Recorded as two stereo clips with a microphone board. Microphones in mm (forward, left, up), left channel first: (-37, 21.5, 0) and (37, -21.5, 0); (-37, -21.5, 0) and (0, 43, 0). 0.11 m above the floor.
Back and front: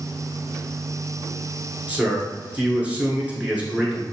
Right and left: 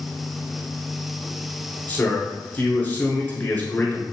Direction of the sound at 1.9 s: 85° right.